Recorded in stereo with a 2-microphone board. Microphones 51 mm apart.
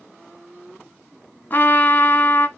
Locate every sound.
1.5 s a trumpet: 40° left (ahead or behind), 1.3 m